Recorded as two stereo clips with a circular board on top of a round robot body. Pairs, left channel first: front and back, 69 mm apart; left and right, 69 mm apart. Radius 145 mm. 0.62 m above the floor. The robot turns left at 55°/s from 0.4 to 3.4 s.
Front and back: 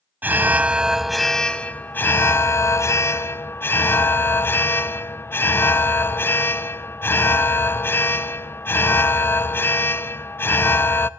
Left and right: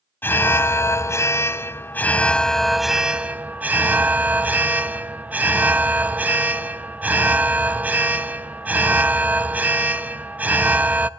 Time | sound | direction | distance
0.2 | an alarm | 130° left | 0.6 m